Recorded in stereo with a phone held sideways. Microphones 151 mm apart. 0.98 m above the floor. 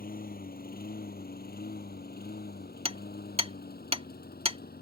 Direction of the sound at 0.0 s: 70° left (ahead or behind).